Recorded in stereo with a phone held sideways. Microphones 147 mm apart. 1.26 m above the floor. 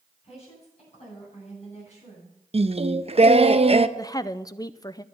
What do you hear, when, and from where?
0.2 s a woman speaking: 45° left (ahead or behind), 8.5 m; by 2.4 s 55° left (ahead or behind), 8 m
2.5 s singing: 45° right (ahead or behind), 0.6 m
4.0 s a woman speaking: 25° left (ahead or behind), 0.5 m